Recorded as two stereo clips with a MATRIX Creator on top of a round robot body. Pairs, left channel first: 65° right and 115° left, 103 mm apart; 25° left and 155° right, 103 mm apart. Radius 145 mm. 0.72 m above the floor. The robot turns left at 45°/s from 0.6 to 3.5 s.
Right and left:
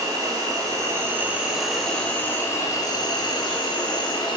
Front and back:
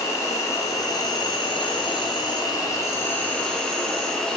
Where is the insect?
70° left, 0.8 m; by 4.4 s 60° right, 0.8 m.